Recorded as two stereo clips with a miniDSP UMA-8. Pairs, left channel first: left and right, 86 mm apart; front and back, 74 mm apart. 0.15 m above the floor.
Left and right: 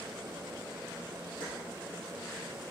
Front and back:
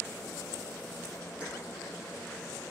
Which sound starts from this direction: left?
Keys jangling, at 1.4 s.